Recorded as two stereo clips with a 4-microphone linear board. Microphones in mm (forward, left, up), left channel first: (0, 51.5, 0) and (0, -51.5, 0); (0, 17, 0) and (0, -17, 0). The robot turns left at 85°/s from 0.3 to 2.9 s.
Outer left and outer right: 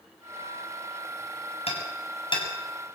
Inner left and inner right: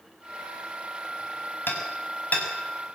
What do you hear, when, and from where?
1.7 s hammering: 70° left (ahead or behind), 6 m; by 2.5 s 40° left (ahead or behind), 6 m